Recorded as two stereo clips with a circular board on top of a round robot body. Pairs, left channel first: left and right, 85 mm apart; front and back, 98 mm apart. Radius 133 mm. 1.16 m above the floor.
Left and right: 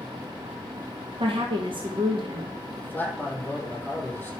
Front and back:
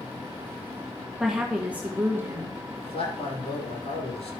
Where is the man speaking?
20° left, 6 m.